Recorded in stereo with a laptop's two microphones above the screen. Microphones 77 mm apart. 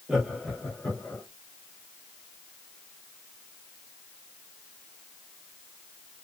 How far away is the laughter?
About 0.8 m.